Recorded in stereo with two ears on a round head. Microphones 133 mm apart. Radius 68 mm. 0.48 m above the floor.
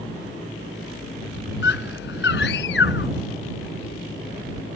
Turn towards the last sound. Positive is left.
turn(degrees=75)  # may be behind; listen again after turning